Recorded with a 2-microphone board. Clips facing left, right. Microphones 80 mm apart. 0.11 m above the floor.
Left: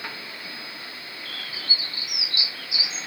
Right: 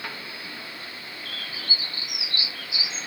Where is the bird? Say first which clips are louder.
Even; 40° right (ahead or behind), 5 m.